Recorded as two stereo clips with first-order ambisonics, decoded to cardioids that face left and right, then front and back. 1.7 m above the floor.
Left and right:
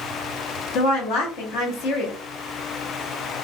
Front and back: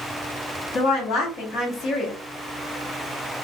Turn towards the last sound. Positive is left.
turn(degrees=55)